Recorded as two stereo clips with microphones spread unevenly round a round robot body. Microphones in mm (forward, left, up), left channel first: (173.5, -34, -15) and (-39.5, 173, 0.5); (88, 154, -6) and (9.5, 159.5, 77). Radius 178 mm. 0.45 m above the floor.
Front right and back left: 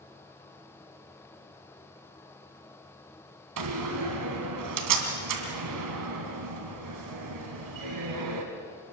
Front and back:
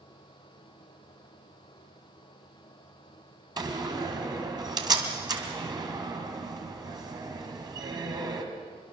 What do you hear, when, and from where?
3.6 s a door slam: 130° left, 3 m